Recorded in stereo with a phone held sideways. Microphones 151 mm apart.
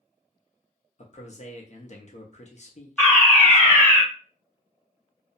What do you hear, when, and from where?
1.0 s a man speaking: 50° left (ahead or behind), 0.7 m
3.0 s a fire alarm: 10° left (ahead or behind), 1.1 m